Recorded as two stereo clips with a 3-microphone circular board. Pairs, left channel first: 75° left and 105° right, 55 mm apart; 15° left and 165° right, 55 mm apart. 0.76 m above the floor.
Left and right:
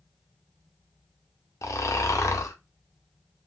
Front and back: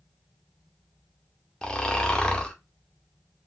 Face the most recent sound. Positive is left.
turn(degrees=90)